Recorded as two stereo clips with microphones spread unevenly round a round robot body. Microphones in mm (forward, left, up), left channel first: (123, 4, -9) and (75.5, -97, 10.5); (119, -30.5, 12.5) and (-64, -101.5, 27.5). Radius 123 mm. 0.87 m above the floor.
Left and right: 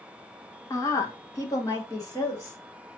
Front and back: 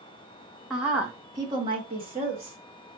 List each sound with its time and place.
0.7 s a woman speaking: 110° left, 0.7 m; by 2.6 s 140° left, 1.4 m